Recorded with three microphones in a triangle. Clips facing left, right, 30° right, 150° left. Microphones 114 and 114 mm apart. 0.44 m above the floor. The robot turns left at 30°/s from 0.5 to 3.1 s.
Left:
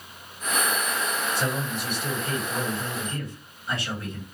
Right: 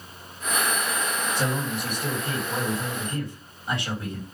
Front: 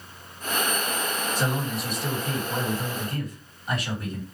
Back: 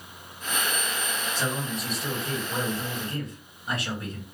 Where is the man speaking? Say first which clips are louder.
Right 1 dB, front 2 dB; 100° right, 3 m; by 4.2 s 155° right, 3 m.